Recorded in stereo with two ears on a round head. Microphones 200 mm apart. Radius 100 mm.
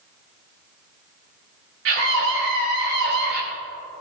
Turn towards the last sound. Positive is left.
turn(degrees=-50)  # may be behind; listen again after turning